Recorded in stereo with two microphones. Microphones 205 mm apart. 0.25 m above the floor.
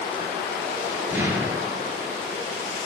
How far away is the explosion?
About 2 m.